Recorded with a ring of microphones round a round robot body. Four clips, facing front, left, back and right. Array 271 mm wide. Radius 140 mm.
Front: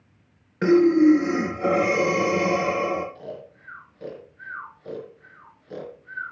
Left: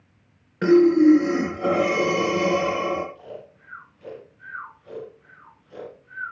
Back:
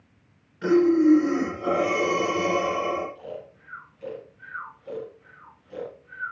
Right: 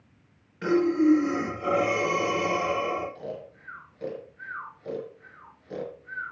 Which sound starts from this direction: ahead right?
Snoring, at 3.1 s.